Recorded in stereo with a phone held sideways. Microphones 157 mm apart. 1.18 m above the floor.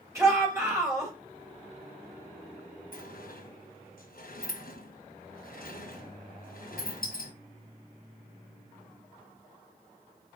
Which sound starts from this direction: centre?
A shout, at 0.1 s.